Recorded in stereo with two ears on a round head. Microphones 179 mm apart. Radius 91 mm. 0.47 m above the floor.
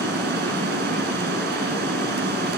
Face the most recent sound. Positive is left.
turn(degrees=-55)  # may be behind; listen again after turning